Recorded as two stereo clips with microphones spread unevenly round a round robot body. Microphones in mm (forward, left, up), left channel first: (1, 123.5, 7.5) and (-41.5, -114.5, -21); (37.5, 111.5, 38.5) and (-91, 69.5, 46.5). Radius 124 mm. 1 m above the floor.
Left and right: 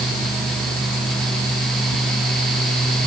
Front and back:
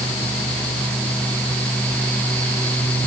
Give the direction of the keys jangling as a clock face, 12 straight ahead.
I don't hear keys jangling.